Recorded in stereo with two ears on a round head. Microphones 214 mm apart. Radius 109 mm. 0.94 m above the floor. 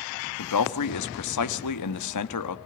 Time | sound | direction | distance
0.4 | a man speaking | 80° left | 1.2 m